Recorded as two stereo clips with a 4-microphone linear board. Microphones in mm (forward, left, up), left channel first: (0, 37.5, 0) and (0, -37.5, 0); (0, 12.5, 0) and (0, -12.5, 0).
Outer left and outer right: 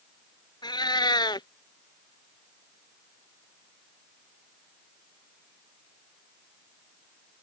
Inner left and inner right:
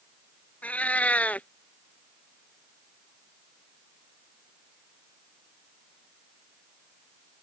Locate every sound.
0.6 s a cat meowing: 85° left